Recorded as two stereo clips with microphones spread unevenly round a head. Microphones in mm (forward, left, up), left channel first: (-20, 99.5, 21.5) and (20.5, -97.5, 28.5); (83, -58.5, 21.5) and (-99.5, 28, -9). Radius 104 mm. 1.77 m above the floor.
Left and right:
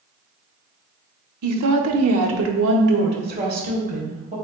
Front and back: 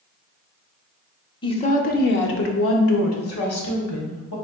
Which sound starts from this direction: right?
A woman speaking, at 1.4 s.